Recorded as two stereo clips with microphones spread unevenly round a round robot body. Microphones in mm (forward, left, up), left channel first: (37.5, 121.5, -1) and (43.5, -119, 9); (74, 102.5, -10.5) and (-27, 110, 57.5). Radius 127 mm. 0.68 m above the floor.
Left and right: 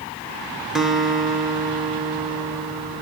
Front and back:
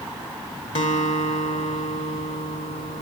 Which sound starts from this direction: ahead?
A guitar, at 0.8 s.